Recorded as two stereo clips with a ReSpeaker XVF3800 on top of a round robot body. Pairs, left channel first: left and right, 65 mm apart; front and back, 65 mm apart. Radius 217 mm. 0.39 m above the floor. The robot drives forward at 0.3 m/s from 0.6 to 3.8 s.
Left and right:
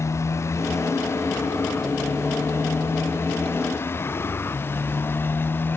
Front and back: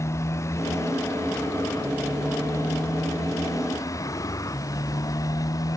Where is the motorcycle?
45° left; by 5.8 s 35° left.